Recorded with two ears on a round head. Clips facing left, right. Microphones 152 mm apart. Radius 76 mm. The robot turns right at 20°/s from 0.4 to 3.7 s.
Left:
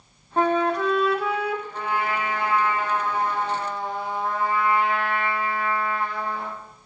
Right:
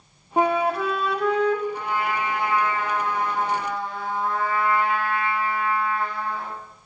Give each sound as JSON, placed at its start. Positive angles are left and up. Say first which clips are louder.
{"t": 0.4, "sound": "a flute", "louder": "even", "side_deg": -10, "distance_m": 0.5}
{"t": 1.7, "sound": "a trumpet", "louder": "even", "azimuth_deg": 115, "distance_m": 2.5}